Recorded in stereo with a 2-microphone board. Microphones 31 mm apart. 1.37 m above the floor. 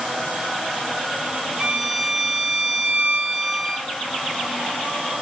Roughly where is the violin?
Centre.